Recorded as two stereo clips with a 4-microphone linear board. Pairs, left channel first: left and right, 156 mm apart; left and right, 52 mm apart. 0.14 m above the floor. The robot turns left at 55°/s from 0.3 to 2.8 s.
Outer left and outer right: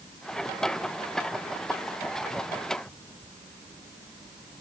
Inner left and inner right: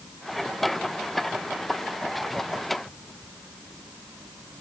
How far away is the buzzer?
No buzzer in this recording.